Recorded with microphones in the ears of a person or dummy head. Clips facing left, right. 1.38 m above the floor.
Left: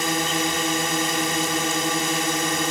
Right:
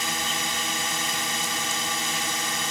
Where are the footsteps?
No footsteps in this recording.